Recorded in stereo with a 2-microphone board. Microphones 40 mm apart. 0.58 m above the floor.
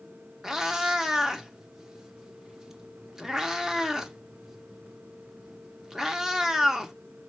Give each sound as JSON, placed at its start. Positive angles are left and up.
{"t": 0.4, "sound": "a cat meowing", "side_deg": -10, "distance_m": 0.6}